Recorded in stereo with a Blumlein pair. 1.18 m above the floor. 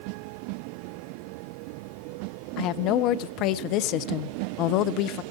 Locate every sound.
2.6 s a woman speaking: 40° left, 0.8 m